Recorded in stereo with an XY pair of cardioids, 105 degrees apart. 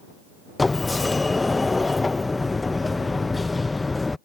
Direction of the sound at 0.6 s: 20° left.